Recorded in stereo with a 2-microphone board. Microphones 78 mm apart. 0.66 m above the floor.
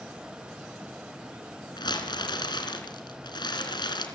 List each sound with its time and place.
1.8 s crumpling: 70° left (ahead or behind), 3.5 m